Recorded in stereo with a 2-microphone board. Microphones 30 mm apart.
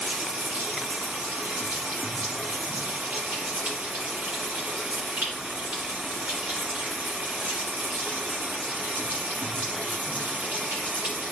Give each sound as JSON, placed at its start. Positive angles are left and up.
{"t": 0.0, "sound": "running water", "side_deg": -70, "distance_m": 5.5}